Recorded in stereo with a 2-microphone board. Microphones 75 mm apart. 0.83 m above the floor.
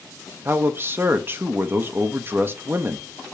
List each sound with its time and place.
0.5 s a man speaking: 35° right (ahead or behind), 1.0 m